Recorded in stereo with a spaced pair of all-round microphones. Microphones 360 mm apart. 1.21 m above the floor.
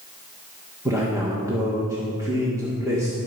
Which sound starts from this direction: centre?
A man speaking, at 0.8 s.